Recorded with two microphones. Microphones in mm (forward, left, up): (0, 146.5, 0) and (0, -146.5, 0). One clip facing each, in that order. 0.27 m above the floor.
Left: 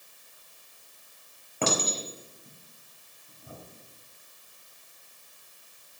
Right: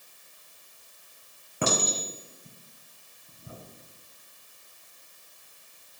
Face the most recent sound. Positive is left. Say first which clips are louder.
# even
turn(degrees=-15)  # may be behind; listen again after turning